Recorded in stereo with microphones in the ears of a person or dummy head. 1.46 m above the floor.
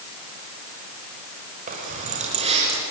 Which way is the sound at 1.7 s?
45° right (ahead or behind).